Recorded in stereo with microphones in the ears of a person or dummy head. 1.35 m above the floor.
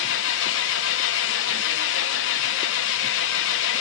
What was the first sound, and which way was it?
An engine running, 70° left (ahead or behind).